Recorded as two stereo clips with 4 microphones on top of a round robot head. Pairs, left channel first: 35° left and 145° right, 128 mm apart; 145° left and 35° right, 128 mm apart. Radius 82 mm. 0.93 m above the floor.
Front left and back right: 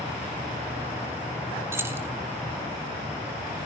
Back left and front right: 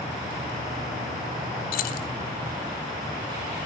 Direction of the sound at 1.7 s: 140° left.